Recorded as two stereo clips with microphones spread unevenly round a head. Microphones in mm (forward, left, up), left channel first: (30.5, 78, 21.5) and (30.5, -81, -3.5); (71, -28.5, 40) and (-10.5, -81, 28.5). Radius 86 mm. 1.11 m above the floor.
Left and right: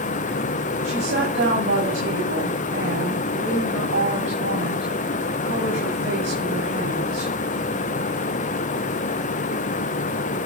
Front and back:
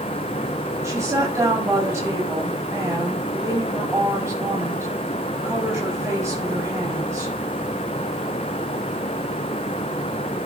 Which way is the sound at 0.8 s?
90° right.